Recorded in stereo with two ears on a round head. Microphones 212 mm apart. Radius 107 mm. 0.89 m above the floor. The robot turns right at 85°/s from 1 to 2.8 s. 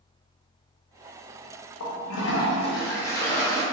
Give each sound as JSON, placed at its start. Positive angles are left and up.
{"t": 1.8, "sound": "a toilet flushing", "azimuth_deg": 80, "distance_m": 0.6}